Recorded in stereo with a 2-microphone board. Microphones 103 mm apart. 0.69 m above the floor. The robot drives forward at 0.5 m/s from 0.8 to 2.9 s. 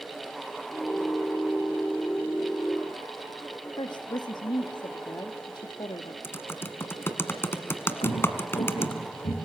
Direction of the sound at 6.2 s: 25° left (ahead or behind).